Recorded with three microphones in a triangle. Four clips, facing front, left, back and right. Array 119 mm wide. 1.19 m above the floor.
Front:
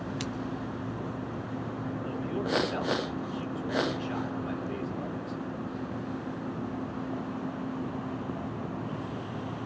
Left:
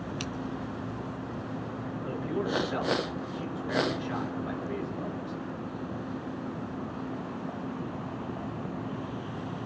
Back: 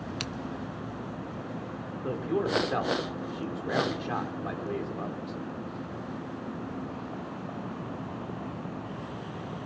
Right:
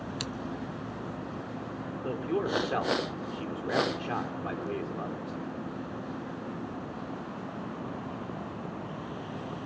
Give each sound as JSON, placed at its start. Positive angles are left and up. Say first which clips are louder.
{"t": 0.2, "sound": "scissors", "louder": "left 1 dB, front 3 dB", "azimuth_deg": -170, "distance_m": 0.7}
{"t": 2.0, "sound": "a man speaking", "louder": "right 2 dB, back 5 dB", "azimuth_deg": -135, "distance_m": 3.0}